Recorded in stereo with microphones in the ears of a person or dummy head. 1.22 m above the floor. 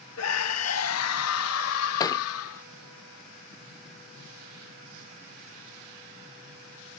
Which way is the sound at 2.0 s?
20° left (ahead or behind).